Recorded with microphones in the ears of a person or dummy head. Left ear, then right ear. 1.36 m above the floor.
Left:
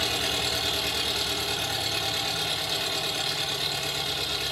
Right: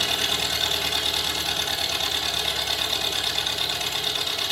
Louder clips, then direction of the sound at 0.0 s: Right 3 dB; 45° right (ahead or behind).